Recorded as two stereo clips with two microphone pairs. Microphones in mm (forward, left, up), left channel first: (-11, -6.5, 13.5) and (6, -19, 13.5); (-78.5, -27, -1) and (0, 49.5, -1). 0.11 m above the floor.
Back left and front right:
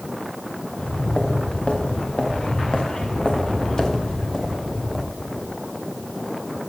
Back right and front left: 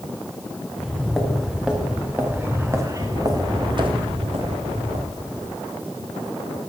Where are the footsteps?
140° left, 3.5 m; by 5.5 s 55° left, 2.5 m.